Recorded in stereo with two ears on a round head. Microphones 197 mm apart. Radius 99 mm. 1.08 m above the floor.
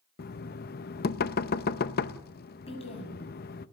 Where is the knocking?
45° left (ahead or behind), 0.6 m.